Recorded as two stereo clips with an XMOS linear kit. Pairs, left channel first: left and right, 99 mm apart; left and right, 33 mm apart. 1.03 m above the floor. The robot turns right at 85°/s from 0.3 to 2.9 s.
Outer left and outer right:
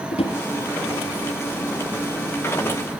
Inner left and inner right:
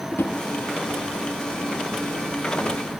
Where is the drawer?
80° left, 4.5 m.